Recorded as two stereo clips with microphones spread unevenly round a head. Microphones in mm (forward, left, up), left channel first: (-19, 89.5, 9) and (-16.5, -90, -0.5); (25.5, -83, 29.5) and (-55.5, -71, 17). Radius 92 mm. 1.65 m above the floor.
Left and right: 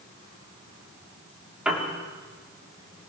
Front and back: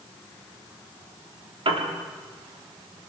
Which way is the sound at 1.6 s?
175° right.